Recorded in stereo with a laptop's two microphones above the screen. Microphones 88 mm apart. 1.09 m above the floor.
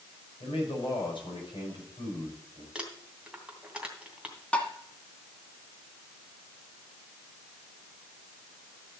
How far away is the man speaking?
About 6 m.